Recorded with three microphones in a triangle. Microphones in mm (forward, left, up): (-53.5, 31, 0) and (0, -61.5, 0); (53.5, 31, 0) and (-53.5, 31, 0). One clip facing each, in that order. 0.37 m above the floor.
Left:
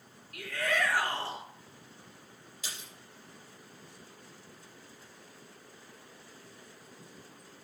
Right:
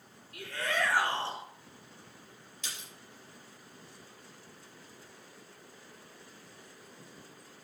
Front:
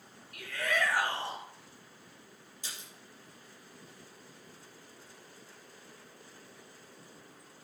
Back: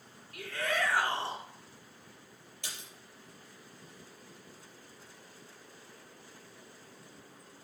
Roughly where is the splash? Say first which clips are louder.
Even, back 1 dB; behind right.